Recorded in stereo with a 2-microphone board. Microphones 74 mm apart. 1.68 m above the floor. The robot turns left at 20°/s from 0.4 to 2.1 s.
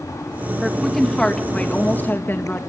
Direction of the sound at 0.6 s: Centre (ahead or behind).